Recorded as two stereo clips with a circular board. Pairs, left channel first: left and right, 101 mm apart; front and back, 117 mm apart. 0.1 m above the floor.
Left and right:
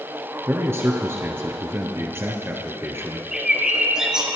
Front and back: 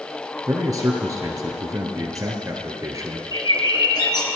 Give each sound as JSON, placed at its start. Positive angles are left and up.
{"t": 0.5, "sound": "a man speaking", "azimuth_deg": -140, "distance_m": 1.7}
{"t": 3.3, "sound": "a bird", "azimuth_deg": -10, "distance_m": 1.8}